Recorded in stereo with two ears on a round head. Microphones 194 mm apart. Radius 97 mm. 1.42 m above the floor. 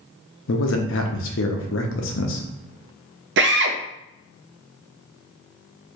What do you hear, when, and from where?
0.5 s a man speaking: 60° left (ahead or behind), 0.7 m
3.4 s a drill: 55° right (ahead or behind), 0.5 m